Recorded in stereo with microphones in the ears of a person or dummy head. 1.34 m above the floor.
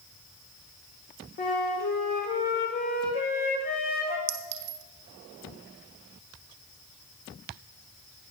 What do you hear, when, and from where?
1.4 s a flute: 40° left (ahead or behind), 1.4 m
4.3 s a clink: 55° right (ahead or behind), 0.6 m